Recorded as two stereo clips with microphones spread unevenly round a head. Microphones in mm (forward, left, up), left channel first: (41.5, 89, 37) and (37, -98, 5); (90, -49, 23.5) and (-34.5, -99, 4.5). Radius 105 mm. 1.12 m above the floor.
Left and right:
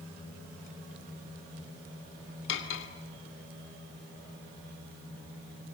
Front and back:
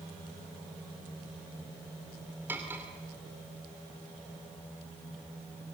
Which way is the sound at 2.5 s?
120° left.